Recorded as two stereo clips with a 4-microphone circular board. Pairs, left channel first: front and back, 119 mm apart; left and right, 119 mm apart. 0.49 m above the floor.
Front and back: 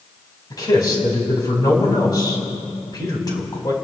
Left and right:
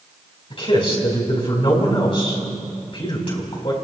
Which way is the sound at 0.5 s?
55° left.